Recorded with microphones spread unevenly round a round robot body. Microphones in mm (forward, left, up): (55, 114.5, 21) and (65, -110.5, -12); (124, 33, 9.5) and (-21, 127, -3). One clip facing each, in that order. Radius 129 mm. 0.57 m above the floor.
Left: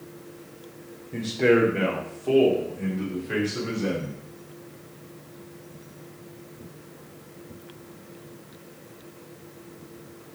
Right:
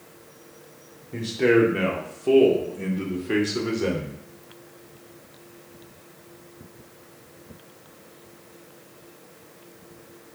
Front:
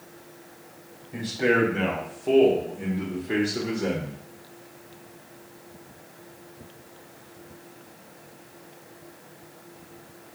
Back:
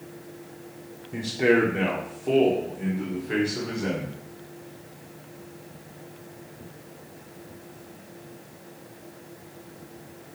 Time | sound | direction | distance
1.1 | a man speaking | 165° right | 1.4 m